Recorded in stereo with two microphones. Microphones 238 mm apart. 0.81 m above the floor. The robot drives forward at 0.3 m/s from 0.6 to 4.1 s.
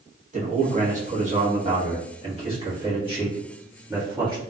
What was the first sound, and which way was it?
A man speaking, 35° right (ahead or behind).